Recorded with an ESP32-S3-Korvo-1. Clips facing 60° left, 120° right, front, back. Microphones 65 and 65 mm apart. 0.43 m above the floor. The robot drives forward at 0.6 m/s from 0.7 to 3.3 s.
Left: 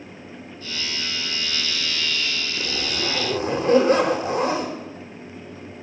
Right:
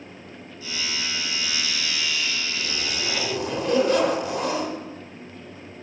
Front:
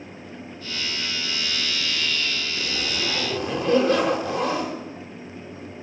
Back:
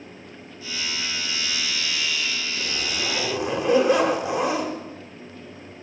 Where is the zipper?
90° left, 1.4 m; by 4.8 s 110° left, 1.4 m.